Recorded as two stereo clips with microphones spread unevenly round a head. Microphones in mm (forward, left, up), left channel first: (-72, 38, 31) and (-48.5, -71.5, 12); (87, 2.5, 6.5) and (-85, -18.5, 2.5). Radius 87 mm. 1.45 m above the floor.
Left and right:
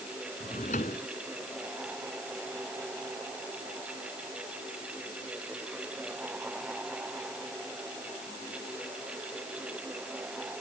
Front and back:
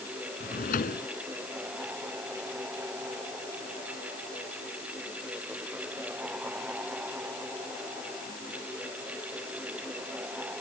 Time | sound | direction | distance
0.4 | a drawer | 50° left | ?